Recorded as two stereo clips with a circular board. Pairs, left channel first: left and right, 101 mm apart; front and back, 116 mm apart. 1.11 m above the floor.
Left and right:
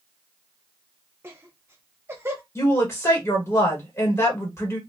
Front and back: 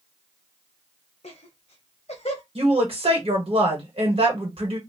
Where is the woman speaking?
150° left, 1.4 m.